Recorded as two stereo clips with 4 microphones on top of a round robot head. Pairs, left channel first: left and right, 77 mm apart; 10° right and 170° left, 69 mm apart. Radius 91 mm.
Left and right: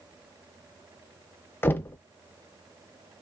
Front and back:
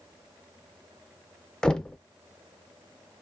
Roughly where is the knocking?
Ahead left.